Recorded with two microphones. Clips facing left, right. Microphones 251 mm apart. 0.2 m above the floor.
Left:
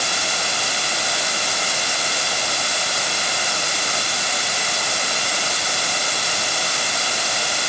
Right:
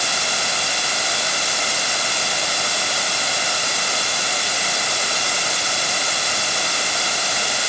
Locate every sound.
Only background noise.